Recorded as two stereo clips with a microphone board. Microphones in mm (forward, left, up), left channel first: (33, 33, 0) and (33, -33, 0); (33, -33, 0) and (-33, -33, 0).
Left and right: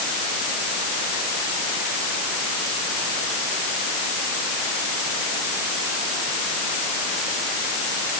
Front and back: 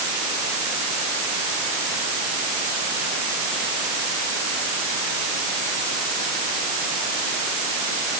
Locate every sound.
Only background noise.